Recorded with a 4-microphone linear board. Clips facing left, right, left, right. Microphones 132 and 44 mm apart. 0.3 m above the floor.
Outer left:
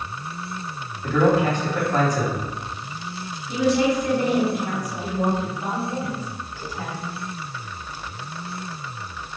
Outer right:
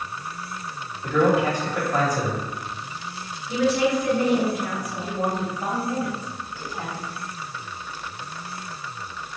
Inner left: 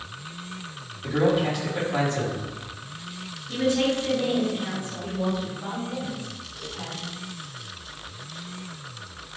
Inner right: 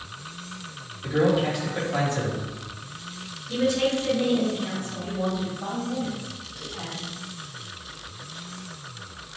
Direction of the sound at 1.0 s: 10° right (ahead or behind).